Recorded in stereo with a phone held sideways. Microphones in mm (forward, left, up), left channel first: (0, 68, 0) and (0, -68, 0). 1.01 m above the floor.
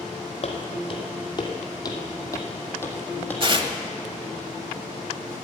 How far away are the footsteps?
About 2 m.